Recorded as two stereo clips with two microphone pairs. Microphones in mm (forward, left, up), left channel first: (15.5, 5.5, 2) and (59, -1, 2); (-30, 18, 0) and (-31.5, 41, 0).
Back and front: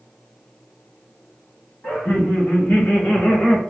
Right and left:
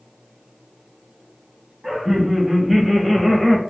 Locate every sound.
1.8 s laughter: 155° left, 1.9 m; by 3.6 s 165° right, 1.0 m